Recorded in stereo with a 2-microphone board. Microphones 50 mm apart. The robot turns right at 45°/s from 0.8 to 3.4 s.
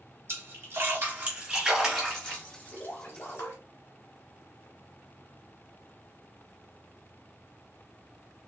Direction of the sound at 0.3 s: 50° right (ahead or behind).